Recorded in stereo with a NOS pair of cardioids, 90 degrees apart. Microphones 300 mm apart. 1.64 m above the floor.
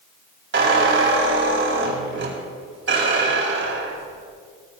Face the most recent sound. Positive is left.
turn(degrees=-45)